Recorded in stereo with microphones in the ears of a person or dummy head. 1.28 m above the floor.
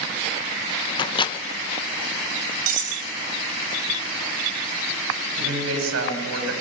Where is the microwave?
25° left (ahead or behind), 0.7 m.